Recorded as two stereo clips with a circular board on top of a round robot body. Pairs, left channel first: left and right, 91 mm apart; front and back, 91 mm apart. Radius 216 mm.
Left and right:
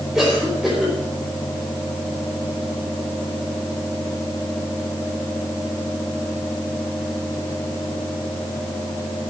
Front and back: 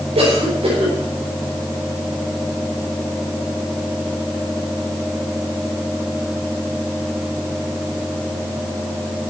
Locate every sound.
0.1 s a cough: 175° right, 5.5 m